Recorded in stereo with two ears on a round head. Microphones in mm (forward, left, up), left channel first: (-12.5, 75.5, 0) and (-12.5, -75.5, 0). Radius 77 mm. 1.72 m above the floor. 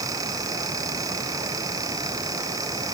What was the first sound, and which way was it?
Only background noise.